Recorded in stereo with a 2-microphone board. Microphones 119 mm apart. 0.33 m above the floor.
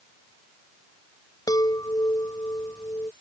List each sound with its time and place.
1.5 s a chime: 30° left (ahead or behind)